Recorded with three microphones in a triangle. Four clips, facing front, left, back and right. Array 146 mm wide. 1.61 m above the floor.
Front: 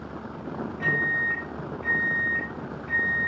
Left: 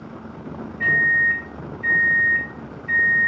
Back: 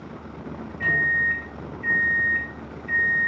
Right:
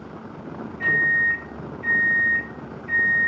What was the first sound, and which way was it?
A microwave, 20° left.